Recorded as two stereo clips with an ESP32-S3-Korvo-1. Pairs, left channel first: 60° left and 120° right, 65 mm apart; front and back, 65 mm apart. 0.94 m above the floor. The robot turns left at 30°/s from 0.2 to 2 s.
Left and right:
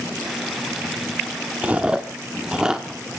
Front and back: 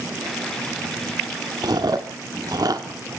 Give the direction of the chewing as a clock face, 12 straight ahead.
6 o'clock.